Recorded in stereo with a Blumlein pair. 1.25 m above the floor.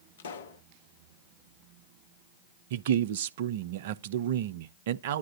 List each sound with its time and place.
0.2 s a pop: 60° left, 1.3 m
2.7 s a man speaking: 55° right, 0.7 m